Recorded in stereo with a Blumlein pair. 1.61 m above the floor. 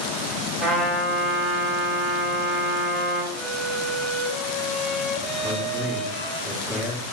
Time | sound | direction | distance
0.6 | a trumpet | 20° right | 5 m
3.3 | a violin | 5° left | 2 m
5.4 | a man speaking | 5° right | 1.9 m